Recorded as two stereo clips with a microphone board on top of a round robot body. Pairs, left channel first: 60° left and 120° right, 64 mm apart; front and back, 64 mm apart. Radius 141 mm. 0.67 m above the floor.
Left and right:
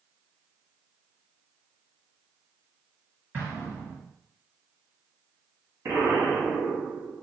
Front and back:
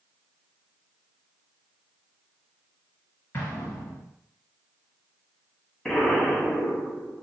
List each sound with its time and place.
3.3 s an explosion: 55° right, 0.8 m
5.8 s an explosion: 85° right, 1.7 m